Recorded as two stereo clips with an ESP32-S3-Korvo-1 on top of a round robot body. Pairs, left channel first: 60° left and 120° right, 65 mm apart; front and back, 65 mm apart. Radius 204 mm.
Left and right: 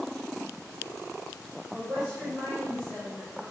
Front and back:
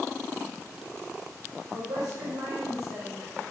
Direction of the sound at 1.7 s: 160° left.